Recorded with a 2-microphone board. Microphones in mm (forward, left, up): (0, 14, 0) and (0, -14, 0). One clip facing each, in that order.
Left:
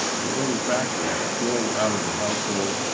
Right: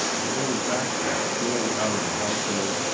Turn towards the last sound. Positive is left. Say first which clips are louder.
# left 1 dB
turn(degrees=20)  # may be behind; listen again after turning